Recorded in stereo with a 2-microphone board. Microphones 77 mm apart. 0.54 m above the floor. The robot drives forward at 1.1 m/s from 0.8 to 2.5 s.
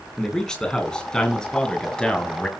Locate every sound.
0.2 s a man speaking: 10° left (ahead or behind), 6.5 m